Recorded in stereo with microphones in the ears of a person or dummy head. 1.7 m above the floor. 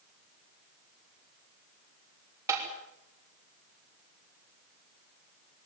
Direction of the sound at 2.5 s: 15° right (ahead or behind).